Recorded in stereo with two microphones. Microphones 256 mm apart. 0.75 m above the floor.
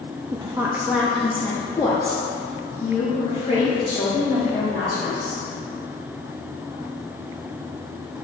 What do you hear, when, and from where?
0.3 s a woman speaking: 20° right (ahead or behind), 0.6 m; by 5.4 s 30° left (ahead or behind), 3 m